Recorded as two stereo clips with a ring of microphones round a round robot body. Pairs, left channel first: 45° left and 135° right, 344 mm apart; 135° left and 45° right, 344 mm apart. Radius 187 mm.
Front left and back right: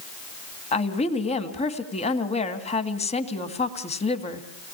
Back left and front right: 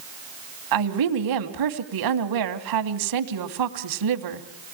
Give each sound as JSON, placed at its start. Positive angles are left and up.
{"t": 0.7, "sound": "a woman speaking", "azimuth_deg": -25, "distance_m": 2.5}